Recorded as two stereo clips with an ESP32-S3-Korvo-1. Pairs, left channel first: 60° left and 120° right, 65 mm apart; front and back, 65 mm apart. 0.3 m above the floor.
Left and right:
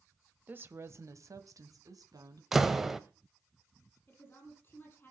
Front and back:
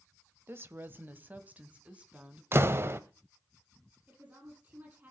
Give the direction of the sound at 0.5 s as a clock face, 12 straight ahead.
5 o'clock.